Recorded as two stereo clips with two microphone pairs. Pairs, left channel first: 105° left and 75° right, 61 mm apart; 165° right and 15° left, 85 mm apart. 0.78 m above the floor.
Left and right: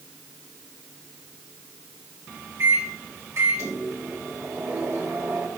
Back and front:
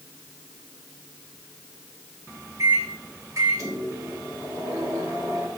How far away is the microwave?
About 2.5 m.